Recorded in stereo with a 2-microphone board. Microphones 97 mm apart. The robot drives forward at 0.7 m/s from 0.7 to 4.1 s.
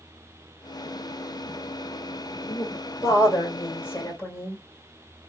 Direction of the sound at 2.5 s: 35° left (ahead or behind).